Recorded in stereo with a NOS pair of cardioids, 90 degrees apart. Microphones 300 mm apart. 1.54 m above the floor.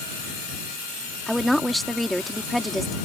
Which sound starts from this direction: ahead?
A woman speaking, at 1.3 s.